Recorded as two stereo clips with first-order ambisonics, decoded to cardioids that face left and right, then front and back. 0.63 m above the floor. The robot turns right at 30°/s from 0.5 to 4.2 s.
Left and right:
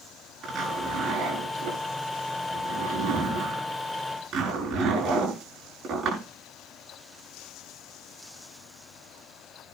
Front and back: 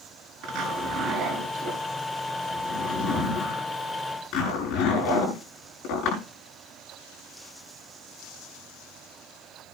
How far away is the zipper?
About 9.5 m.